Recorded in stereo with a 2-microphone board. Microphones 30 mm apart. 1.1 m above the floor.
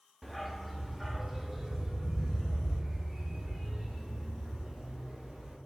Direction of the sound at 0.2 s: 5° left (ahead or behind).